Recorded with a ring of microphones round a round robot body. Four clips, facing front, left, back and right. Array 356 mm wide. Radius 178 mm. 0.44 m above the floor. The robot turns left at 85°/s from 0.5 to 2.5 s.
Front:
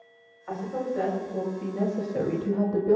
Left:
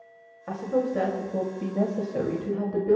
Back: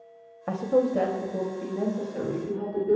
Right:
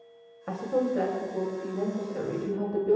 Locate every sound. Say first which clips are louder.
0.5 s a woman speaking: left 1 dB, back 7 dB; 175° right, 2.5 m; by 3.0 s 15° left, 2.5 m